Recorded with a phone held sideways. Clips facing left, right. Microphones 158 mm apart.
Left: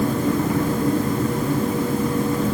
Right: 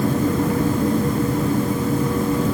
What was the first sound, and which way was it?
Only background noise.